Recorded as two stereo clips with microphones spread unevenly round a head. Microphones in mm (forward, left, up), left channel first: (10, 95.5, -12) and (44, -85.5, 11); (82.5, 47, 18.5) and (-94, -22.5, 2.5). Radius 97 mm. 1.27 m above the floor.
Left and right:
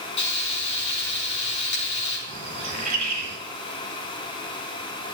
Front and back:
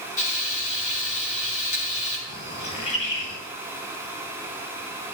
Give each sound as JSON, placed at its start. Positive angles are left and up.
{"t": 0.2, "sound": "frying", "azimuth_deg": 70, "distance_m": 5.0}
{"t": 2.3, "sound": "a bird", "azimuth_deg": -35, "distance_m": 4.0}